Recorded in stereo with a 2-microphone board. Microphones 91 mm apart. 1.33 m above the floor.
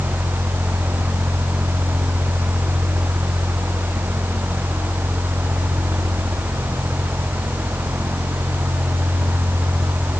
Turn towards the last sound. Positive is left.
No sound to turn to.